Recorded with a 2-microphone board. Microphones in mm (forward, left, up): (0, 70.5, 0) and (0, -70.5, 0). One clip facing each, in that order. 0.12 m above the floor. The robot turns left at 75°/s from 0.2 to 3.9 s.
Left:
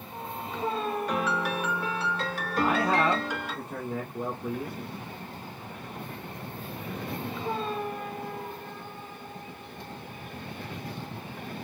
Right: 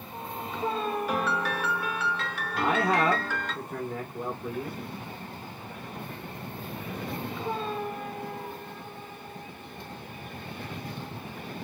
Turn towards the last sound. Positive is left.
turn(degrees=165)